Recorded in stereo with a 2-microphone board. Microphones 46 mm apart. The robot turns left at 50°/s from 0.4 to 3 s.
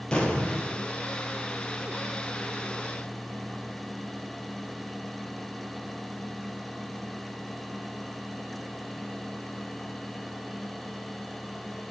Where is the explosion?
20° left (ahead or behind), 1.9 m; by 0.8 s 35° left (ahead or behind), 1.9 m.